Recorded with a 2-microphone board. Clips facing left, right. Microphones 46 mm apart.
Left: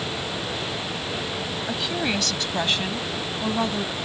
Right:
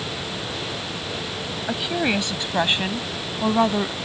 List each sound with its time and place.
1.7 s a woman speaking: 15° right (ahead or behind); by 4.0 s 30° right (ahead or behind)